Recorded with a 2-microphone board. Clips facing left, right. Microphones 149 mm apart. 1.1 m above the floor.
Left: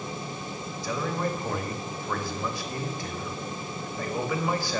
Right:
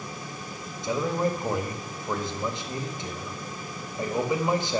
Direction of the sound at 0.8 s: 20° right (ahead or behind).